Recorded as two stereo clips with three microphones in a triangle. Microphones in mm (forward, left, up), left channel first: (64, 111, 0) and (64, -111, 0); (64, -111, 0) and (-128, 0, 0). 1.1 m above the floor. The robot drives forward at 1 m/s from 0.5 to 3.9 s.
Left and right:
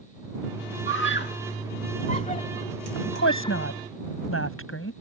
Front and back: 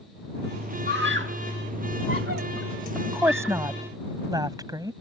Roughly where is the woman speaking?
Left.